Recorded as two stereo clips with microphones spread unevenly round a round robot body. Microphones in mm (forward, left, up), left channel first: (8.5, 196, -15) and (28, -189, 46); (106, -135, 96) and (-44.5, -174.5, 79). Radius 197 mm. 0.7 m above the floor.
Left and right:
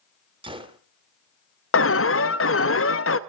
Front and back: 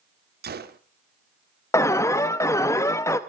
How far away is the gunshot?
About 1.1 m.